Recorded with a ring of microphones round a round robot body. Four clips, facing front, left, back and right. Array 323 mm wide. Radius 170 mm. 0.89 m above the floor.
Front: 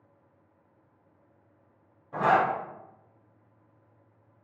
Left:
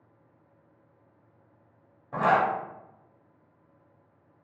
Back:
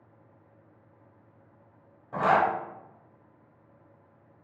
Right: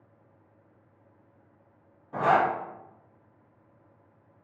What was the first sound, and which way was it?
A zipper, 100° left.